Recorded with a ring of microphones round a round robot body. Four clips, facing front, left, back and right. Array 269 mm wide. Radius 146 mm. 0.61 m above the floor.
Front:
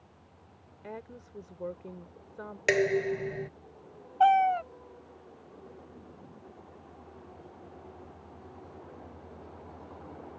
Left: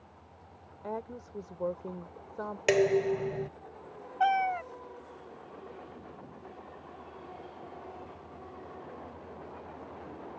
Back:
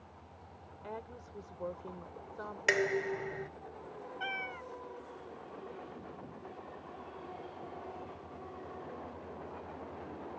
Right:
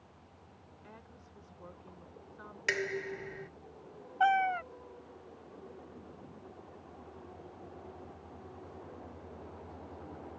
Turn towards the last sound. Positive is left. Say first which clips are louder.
# left 1 dB, front 21 dB
turn(degrees=30)